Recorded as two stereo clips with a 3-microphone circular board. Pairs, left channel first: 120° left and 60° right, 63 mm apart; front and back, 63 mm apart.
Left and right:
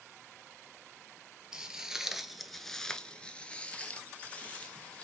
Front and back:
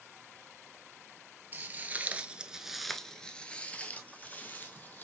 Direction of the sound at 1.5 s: 135° right.